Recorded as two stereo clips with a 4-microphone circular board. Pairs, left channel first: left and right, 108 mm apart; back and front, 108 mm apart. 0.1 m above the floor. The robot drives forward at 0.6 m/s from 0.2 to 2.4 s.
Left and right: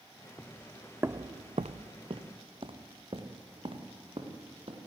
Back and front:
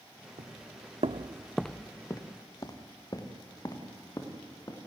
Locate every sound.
0.4 s footsteps: 10° left, 1.3 m; by 4.8 s 125° right, 3.5 m